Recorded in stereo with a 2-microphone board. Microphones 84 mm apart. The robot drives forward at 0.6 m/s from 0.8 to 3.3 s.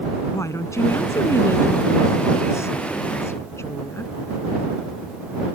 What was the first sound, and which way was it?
A woman speaking, 35° left (ahead or behind).